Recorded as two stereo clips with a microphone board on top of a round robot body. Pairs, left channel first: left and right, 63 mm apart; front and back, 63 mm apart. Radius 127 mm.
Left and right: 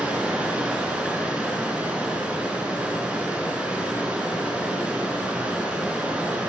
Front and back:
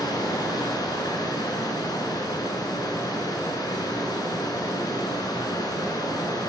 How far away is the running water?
About 5.5 m.